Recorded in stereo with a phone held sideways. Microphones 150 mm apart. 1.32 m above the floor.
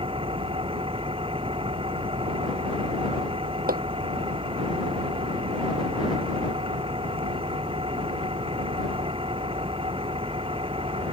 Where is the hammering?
85° right.